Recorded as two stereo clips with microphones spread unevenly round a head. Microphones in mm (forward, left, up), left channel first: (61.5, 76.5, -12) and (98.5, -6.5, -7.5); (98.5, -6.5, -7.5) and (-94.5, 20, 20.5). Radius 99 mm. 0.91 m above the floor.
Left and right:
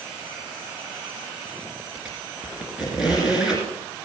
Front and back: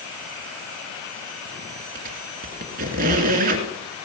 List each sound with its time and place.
1.9 s a squeak: 150° right, 1.9 m